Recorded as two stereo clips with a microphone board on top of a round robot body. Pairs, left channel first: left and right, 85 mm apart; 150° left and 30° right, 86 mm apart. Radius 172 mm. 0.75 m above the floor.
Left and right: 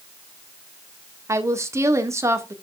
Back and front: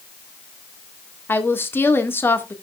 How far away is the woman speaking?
About 1.9 m.